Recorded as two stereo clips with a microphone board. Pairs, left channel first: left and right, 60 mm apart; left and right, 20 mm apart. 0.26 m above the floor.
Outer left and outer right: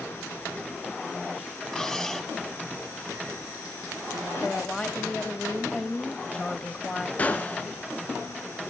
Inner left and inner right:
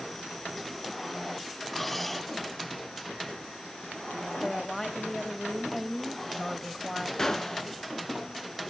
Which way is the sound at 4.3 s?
15° left (ahead or behind).